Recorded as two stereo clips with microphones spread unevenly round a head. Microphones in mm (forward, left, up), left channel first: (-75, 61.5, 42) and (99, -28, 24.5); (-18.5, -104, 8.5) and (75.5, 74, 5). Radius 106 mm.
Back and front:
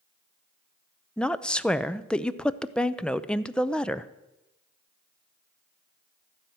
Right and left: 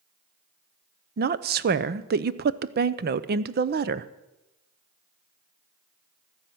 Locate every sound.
1.2 s a woman speaking: 65° left, 0.6 m